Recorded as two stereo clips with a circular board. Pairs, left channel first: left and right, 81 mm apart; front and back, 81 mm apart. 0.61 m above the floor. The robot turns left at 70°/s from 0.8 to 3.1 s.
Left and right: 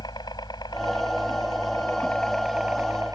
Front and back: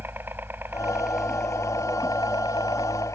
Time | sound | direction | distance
0.0 | a helicopter | 120° left | ?